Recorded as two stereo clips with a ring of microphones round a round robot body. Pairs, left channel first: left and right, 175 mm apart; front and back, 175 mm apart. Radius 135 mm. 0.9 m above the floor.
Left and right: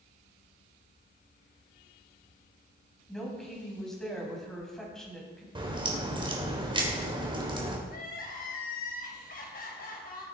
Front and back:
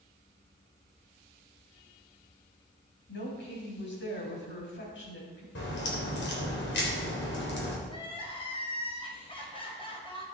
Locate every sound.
3.1 s a woman speaking: 5° left, 6 m
5.5 s a crack: 30° right, 3.5 m
7.9 s crying: 60° left, 4 m